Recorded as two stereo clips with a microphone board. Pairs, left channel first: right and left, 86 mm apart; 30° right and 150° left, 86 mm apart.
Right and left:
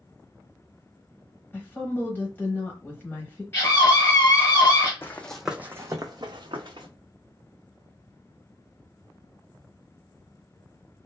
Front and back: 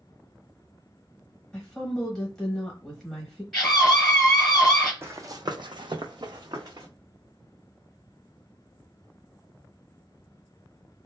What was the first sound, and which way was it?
A woman speaking, 105° right.